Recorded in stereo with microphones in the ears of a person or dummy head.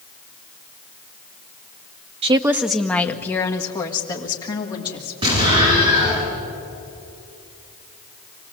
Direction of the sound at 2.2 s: 25° right (ahead or behind).